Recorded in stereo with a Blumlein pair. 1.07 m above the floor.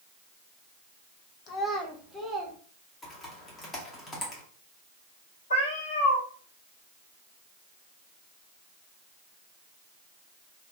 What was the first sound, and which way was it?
A child speaking, 35° left.